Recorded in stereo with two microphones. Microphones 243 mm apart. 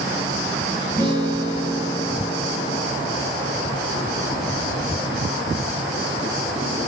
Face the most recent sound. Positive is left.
turn(degrees=-20)  # may be behind; listen again after turning